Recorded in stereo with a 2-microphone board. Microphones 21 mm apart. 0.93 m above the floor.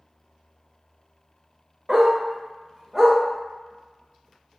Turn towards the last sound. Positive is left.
turn(degrees=-20)  # may be behind; listen again after turning